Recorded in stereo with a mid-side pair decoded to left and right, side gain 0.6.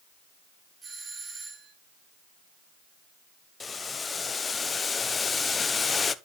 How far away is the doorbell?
About 8.5 m.